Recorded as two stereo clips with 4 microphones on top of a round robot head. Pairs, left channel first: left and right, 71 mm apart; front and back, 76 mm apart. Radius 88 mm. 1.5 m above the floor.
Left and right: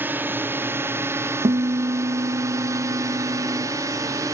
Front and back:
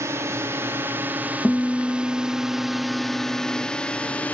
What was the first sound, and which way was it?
A drone, 140° right.